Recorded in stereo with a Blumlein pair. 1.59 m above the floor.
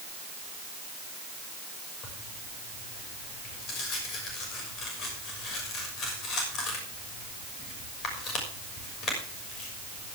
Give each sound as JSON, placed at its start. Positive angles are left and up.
{"t": 2.0, "sound": "tearing paper", "azimuth_deg": 30, "distance_m": 6.0}